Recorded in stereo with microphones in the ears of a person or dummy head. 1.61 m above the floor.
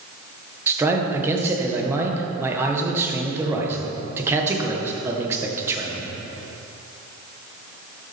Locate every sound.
0.7 s a man speaking: 10° right (ahead or behind), 1.4 m